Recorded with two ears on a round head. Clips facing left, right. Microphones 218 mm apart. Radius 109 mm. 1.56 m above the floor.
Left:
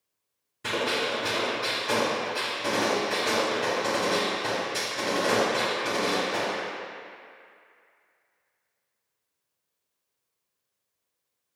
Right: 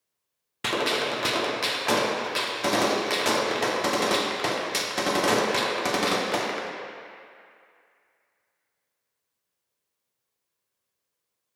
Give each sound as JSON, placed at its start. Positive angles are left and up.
{"t": 0.6, "sound": "a gunshot", "side_deg": -80, "distance_m": 0.6}